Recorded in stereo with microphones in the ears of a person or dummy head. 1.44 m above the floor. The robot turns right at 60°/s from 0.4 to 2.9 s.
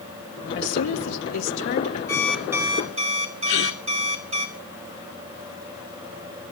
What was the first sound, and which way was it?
A woman speaking, 60° left.